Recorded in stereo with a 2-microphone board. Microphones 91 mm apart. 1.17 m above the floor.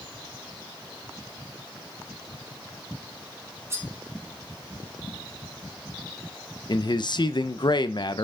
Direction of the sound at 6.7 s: 55° left (ahead or behind).